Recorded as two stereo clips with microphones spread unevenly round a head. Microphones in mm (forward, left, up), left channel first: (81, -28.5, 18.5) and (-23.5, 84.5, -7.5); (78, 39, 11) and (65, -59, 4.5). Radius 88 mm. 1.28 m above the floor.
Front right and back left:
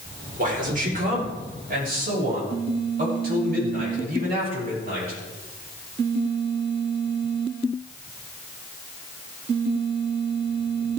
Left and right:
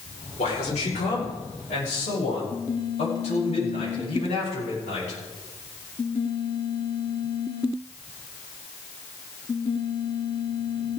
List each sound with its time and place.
0.4 s a man speaking: 100° left, 5 m; by 5.2 s 110° left, 12.5 m